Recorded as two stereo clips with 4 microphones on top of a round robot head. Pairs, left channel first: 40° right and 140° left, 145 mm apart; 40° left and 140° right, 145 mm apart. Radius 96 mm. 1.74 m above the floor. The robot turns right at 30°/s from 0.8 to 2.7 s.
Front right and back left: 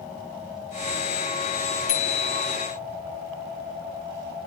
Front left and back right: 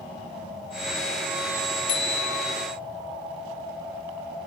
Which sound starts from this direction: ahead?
A bicycle bell, at 1.9 s.